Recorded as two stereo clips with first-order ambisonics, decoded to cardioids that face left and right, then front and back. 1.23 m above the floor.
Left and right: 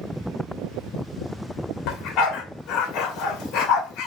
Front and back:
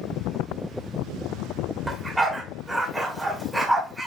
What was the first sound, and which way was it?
A dog barking, 95° left.